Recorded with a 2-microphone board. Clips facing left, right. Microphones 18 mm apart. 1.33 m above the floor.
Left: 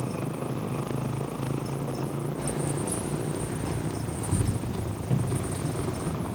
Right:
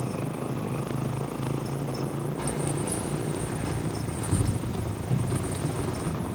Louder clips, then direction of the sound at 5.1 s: Even; 50° left (ahead or behind).